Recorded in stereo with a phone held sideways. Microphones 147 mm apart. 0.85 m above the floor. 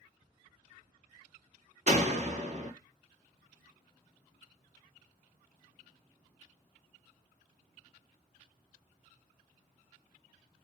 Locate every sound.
1.9 s a door slam: 45° right (ahead or behind), 1.5 m